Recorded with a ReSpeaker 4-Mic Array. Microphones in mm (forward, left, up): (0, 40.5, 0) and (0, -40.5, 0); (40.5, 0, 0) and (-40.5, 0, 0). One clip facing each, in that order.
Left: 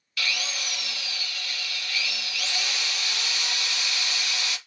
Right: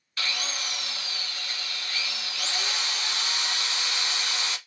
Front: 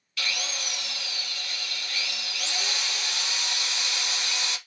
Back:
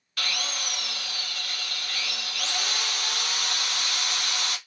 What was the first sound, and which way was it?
A drill, 145° right.